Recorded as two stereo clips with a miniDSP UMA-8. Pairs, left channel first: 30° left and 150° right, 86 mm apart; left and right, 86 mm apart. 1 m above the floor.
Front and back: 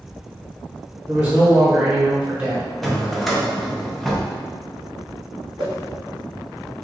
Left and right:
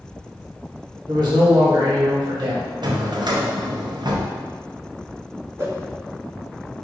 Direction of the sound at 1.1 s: 80° right.